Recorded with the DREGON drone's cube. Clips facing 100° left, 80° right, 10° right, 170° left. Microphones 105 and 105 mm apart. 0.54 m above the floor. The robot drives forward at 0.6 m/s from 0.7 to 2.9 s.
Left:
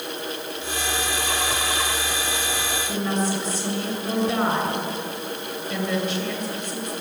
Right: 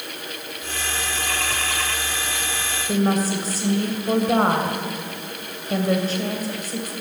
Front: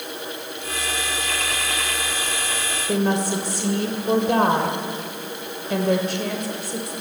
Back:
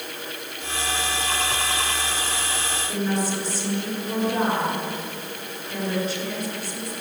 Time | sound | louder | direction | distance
2.9 | a woman speaking | right 5 dB, front 5 dB | 30° right | 2.5 m